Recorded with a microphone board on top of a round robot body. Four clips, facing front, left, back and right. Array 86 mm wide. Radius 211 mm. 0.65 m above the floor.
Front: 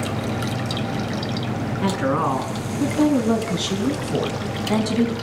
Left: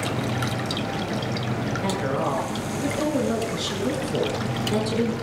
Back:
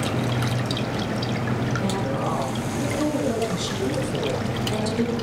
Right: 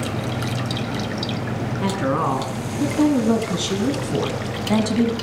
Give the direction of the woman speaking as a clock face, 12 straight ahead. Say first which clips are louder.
Right 5 dB, front 4 dB; 1 o'clock.